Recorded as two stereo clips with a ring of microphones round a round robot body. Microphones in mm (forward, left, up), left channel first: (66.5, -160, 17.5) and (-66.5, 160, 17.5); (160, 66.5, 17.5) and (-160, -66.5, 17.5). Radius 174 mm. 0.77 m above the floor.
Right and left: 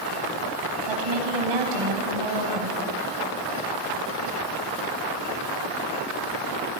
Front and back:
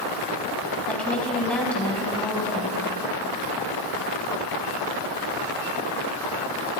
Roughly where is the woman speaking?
Left.